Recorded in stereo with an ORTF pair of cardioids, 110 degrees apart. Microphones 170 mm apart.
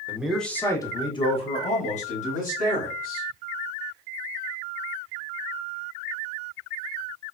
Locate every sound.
0.1 s a man speaking: 10° right, 0.7 m; by 3.3 s 55° left, 2 m